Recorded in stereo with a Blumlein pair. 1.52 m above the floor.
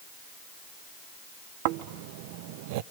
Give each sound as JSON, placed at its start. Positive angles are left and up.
{"t": 1.6, "sound": "snoring", "azimuth_deg": -45, "distance_m": 0.5}